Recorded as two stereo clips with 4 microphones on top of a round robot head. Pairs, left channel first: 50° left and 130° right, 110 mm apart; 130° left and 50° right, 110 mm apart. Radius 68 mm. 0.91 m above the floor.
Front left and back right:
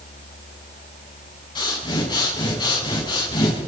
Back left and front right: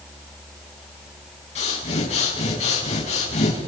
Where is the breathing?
100° left, 6.5 m.